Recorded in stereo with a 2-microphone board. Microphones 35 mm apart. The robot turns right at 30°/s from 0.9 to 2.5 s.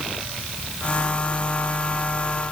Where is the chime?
No chime in this recording.